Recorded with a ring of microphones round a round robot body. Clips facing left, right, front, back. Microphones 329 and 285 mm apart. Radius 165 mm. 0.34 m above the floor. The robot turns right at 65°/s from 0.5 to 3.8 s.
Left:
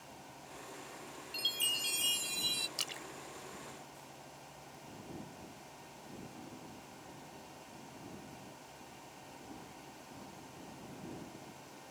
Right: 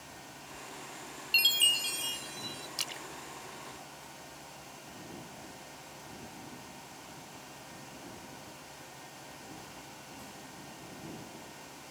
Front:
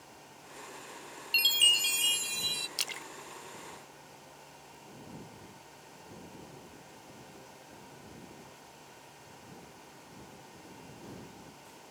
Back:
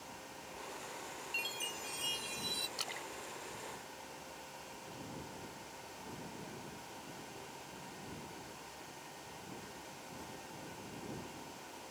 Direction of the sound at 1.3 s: 35° right.